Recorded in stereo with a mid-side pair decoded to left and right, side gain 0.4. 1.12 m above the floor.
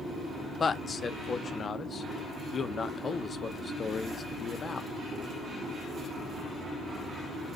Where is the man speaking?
45° left, 0.6 m.